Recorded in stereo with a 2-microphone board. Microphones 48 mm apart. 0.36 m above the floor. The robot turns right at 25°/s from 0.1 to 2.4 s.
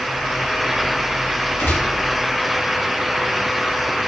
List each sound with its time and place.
1.6 s a gunshot: 65° left (ahead or behind), 3.5 m; by 2.0 s 60° left (ahead or behind), 3.5 m